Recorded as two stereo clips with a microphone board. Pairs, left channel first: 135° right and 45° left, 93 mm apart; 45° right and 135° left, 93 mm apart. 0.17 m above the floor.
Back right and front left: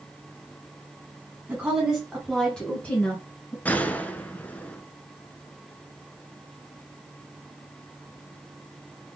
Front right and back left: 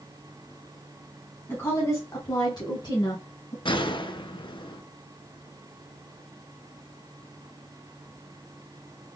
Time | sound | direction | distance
1.5 | a woman speaking | 10° right | 1.3 m
3.6 | a gunshot | 65° right | 0.5 m